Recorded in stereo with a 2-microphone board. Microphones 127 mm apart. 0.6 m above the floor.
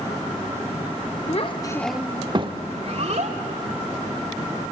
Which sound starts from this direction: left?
A child speaking, at 1.3 s.